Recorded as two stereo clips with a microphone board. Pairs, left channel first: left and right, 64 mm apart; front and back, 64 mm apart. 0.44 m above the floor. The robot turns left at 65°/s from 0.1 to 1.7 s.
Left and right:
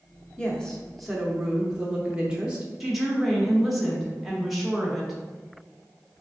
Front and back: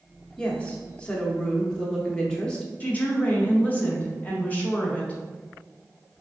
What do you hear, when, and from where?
0.4 s a woman speaking: 40° left, 0.7 m; by 2.7 s 45° right, 0.7 m
2.8 s a woman speaking: 5° right, 0.9 m